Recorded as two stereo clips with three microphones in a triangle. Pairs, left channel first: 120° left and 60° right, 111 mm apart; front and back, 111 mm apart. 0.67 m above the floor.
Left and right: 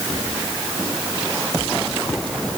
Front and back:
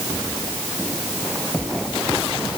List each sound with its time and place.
Only background noise.